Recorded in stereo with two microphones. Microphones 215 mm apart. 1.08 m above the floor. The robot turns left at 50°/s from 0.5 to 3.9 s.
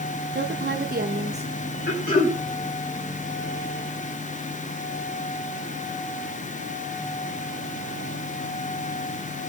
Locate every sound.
0.3 s a woman speaking: 100° right, 0.9 m; by 1.5 s 150° right, 0.9 m
1.9 s throat clearing: 50° left (ahead or behind), 5 m; by 2.4 s 25° left (ahead or behind), 5 m